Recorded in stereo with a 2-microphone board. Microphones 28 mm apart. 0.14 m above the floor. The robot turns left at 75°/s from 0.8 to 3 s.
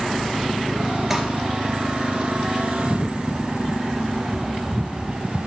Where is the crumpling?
5° right (ahead or behind), 2.5 m; by 1.2 s 10° right (ahead or behind), 2.5 m.